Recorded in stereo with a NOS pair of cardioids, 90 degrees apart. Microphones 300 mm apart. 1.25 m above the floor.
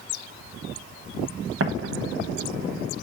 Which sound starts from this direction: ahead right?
An explosion, at 1.6 s.